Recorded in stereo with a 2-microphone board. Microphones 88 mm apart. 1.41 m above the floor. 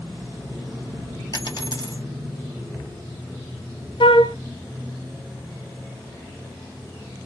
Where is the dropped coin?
45° left (ahead or behind), 2 m.